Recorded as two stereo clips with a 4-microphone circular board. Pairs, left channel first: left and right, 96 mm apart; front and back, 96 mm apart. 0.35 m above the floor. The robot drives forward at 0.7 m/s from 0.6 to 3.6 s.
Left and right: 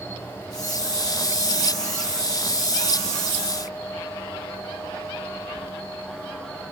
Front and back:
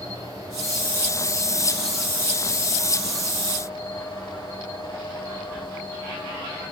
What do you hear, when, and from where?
0.0 s an insect: 150° left, 1.9 m; by 6.7 s 165° left, 3.5 m